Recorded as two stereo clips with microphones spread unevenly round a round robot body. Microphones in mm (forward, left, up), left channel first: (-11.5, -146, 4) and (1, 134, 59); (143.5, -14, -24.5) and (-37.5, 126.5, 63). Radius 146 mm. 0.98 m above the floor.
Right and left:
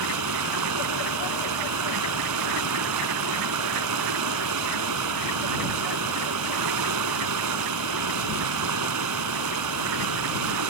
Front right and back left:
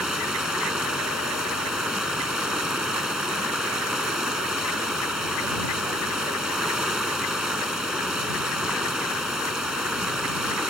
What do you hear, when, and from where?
0.0 s running water: 60° left